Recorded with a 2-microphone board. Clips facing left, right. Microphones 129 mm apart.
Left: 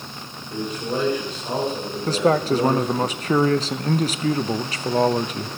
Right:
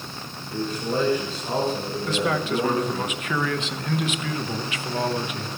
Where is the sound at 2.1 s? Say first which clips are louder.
Left 6 dB; 35° left (ahead or behind), 0.7 m.